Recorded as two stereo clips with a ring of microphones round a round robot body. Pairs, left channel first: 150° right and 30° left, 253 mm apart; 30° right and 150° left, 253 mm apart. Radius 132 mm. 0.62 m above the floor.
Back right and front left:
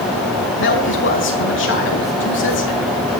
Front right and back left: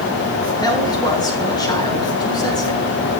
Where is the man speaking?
105° right, 6 m.